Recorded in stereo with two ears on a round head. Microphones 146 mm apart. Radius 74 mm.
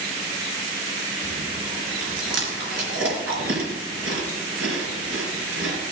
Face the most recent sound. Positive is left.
turn(degrees=-85)